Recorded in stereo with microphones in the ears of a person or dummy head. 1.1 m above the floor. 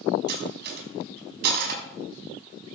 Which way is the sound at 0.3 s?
50° right (ahead or behind).